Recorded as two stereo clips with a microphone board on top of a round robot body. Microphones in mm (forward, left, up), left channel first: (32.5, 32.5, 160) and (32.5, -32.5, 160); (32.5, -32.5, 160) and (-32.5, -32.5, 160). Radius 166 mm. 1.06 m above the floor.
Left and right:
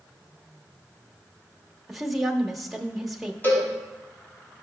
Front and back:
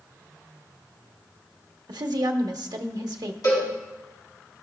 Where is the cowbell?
30° left, 4 m.